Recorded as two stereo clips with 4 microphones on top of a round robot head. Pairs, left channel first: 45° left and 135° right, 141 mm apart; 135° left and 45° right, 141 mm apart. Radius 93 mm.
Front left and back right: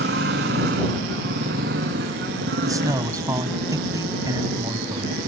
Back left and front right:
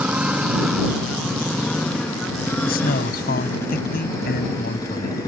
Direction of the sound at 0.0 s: 125° right.